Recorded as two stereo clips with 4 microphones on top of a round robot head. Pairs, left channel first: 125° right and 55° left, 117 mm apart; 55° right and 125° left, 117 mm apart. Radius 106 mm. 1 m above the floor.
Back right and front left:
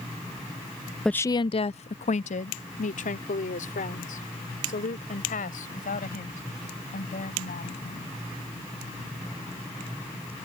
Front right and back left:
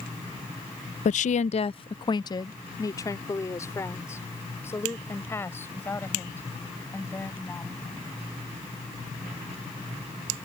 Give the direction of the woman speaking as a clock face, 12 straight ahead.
1 o'clock.